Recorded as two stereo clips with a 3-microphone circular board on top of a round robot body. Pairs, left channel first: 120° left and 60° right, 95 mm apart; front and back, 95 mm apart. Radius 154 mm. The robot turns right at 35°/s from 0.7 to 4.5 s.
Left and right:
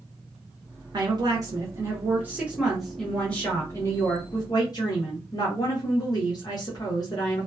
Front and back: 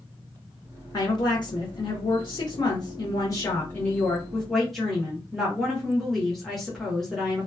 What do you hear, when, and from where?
0.9 s a woman speaking: 40° right, 1.2 m; by 7.5 s 85° left, 1.2 m